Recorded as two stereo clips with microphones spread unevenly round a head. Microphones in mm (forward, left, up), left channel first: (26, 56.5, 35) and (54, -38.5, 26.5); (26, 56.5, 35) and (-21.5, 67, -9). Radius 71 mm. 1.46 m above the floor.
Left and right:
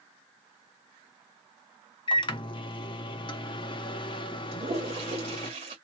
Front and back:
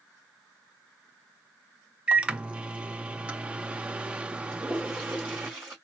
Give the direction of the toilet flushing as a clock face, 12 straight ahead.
3 o'clock.